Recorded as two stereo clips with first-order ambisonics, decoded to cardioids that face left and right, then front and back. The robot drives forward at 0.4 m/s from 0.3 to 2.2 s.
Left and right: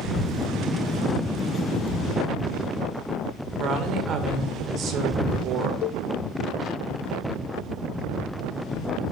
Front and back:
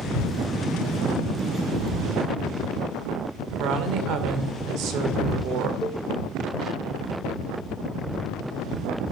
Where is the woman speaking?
140° right, 2 m.